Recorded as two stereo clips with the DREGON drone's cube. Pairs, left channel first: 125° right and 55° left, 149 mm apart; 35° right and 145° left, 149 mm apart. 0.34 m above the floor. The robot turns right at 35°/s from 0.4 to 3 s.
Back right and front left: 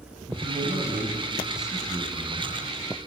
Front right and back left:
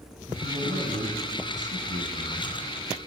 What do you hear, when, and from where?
0.3 s a man speaking: 100° left, 2 m; by 2.6 s 175° left, 2 m